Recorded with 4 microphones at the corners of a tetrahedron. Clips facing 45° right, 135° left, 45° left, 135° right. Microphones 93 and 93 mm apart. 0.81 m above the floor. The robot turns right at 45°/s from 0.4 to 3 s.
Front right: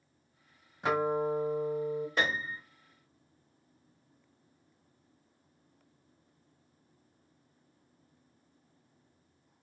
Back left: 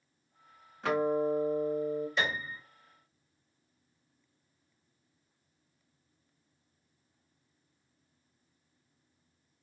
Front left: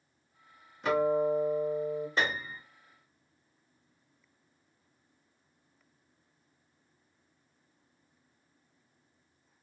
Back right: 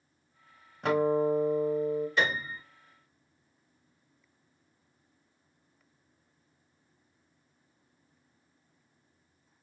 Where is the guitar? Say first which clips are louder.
Back left 1 dB, back right 1 dB; 115° right, 1.2 m; by 2.1 s 60° right, 1.2 m.